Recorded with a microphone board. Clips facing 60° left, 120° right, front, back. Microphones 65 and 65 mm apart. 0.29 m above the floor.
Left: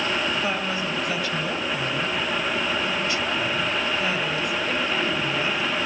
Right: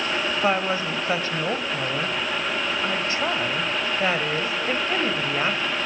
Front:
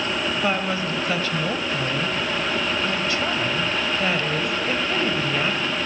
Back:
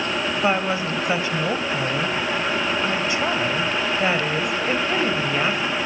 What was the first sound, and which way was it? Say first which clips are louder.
A woman speaking: right 3 dB, back 4 dB; 125° right.